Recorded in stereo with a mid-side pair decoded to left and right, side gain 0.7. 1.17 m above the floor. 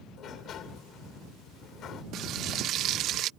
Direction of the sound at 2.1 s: 50° right.